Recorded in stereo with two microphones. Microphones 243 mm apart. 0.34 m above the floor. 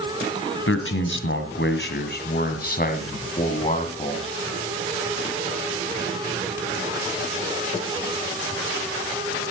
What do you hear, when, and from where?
0.7 s a man speaking: 60° left (ahead or behind), 2.5 m; by 4.3 s 25° left (ahead or behind), 3 m